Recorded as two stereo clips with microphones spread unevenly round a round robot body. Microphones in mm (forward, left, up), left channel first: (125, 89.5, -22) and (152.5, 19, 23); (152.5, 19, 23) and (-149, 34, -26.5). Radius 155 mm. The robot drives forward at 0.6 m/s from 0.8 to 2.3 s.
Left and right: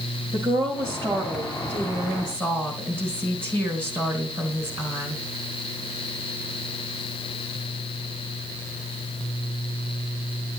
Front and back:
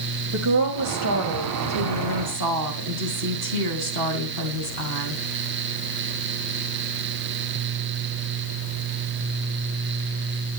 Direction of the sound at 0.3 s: 145° right.